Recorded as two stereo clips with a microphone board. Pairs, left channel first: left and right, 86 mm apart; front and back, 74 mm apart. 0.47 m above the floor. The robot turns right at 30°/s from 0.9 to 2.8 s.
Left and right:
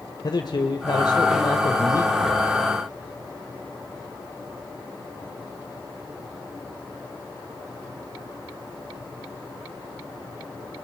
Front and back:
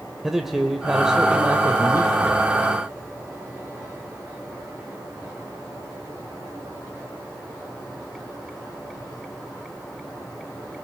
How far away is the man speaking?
About 1.6 m.